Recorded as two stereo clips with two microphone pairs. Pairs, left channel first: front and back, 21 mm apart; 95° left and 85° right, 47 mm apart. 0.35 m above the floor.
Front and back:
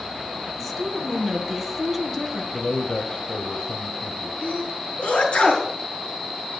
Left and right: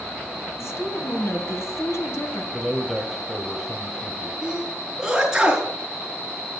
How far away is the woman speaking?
About 3 m.